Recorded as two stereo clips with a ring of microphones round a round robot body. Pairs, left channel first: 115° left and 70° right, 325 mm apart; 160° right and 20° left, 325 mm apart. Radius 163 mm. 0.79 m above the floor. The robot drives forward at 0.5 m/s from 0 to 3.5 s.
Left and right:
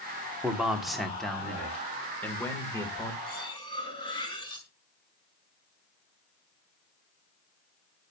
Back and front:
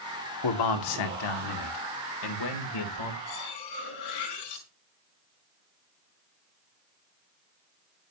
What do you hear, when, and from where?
0.4 s a man speaking: 155° right, 2.0 m; by 3.2 s 165° right, 3 m
3.3 s cutlery clinking: 170° right, 4.5 m